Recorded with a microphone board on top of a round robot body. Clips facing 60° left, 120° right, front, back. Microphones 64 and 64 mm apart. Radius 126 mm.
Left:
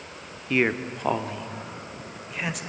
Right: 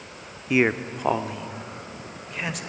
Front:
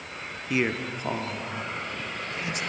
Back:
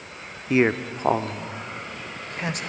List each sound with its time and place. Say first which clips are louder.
0.5 s a man speaking: right 2 dB, back 6 dB; 170° left, 0.9 m; by 2.6 s 150° left, 1.8 m